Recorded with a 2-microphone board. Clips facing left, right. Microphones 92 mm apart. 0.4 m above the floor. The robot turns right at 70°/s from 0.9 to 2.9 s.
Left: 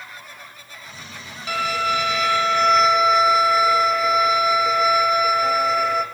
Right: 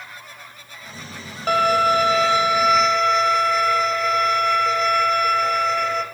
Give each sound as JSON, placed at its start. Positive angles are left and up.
{"t": 1.5, "sound": "a violin", "azimuth_deg": -95, "distance_m": 1.3}